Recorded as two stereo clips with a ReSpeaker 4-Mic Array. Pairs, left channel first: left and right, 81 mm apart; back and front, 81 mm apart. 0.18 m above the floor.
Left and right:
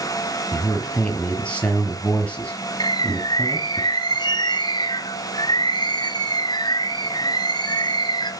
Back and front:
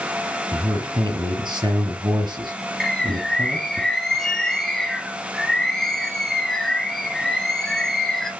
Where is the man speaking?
15° left, 4.5 m.